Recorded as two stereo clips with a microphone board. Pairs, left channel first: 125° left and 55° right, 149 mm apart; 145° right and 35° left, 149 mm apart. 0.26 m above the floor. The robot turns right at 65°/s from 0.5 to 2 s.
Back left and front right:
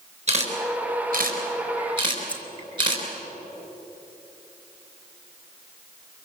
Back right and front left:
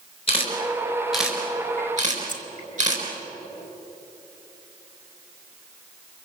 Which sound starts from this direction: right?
A camera shutter, at 0.3 s.